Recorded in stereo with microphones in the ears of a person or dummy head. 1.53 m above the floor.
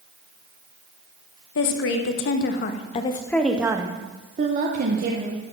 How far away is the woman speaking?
About 1.1 m.